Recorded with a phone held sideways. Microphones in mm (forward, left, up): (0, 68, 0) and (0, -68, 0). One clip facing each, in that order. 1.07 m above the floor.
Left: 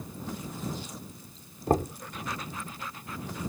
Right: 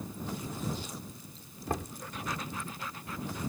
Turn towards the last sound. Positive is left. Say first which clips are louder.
# left 10 dB
turn(degrees=45)  # may be behind; listen again after turning